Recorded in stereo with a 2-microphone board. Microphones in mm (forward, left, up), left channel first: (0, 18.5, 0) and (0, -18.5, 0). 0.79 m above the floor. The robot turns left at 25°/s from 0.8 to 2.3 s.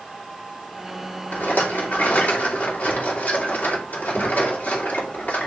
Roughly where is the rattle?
Left.